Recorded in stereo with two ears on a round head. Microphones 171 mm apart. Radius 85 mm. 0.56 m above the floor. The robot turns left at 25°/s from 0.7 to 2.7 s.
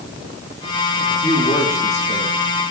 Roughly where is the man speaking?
Centre.